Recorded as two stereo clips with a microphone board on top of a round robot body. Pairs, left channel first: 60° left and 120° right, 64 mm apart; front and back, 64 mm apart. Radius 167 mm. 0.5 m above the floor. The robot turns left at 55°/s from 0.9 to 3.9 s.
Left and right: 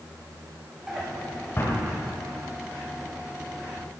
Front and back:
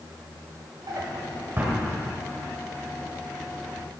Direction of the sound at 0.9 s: 155° left.